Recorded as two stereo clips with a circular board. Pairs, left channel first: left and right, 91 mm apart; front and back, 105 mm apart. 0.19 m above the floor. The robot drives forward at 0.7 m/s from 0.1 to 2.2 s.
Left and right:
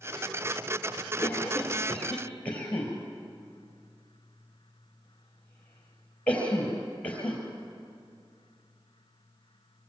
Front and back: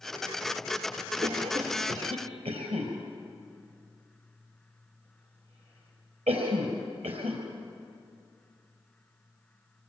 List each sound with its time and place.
1.2 s a cough: 160° left, 4 m